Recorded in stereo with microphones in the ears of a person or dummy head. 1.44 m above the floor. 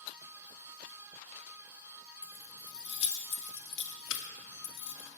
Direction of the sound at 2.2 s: 15° left (ahead or behind).